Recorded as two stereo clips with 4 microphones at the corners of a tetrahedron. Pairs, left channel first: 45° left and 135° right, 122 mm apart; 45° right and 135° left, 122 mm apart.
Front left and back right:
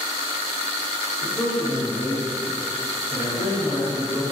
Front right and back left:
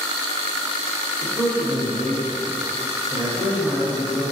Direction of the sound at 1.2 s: 120° left.